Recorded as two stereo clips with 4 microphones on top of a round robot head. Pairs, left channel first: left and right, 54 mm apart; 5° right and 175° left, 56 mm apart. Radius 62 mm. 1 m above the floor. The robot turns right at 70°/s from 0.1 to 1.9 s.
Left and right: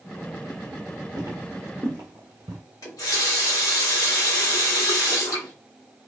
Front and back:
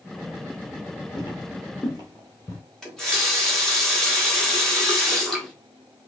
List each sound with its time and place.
1.2 s footsteps: 45° right, 1.2 m; by 2.6 s 70° right, 1.2 m
2.8 s a running tap: 75° left, 1.5 m